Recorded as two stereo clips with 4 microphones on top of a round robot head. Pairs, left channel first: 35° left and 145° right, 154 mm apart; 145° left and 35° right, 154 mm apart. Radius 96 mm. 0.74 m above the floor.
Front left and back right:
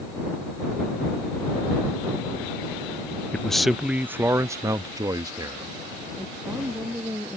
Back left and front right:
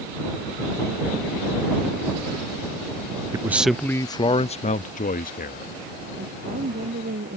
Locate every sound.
3.3 s a man speaking: 35° right; by 5.7 s 150° left
6.2 s a woman speaking: 65° right